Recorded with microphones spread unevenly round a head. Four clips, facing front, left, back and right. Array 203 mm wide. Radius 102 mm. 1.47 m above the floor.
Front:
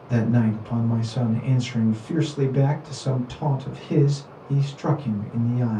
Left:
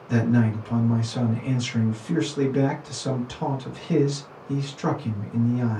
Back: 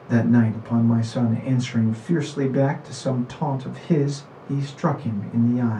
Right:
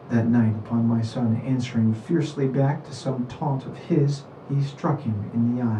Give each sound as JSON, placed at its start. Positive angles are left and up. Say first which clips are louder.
{"t": 0.1, "sound": "a man speaking", "louder": "right 1 dB, back 3 dB", "azimuth_deg": -175, "distance_m": 1.7}